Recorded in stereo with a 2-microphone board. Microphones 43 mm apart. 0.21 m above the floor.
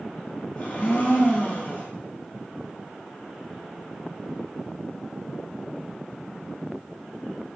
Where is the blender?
45° left (ahead or behind), 1.0 m.